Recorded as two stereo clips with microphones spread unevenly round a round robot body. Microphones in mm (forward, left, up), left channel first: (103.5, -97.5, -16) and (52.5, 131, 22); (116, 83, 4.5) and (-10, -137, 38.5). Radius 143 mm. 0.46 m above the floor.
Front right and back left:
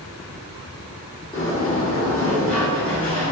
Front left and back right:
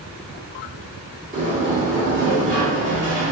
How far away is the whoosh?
No whoosh in this recording.